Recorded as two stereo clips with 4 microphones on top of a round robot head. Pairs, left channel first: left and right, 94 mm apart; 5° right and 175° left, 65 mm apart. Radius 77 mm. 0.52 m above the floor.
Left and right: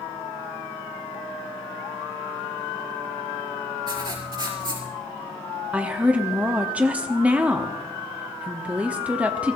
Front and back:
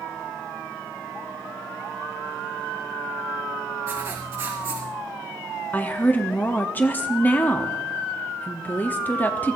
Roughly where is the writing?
Behind right.